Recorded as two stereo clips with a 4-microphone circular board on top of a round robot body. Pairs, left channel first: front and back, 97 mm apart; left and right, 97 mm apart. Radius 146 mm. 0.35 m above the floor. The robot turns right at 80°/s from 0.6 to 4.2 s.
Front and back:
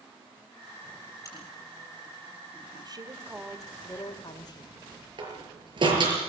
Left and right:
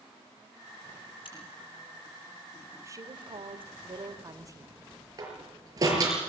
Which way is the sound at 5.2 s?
145° right.